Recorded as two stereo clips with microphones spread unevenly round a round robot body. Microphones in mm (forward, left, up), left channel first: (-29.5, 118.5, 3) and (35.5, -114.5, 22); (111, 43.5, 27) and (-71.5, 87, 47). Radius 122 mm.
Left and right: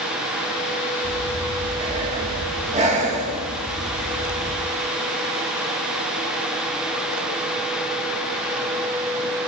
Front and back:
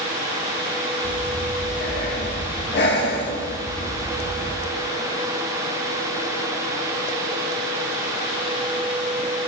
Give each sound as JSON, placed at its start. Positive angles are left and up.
{"t": 1.0, "sound": "breathing", "azimuth_deg": -10, "distance_m": 2.0}